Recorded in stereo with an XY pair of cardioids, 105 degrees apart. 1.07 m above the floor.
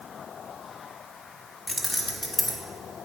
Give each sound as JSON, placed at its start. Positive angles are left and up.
{"t": 1.7, "sound": "keys jangling", "azimuth_deg": 15, "distance_m": 1.4}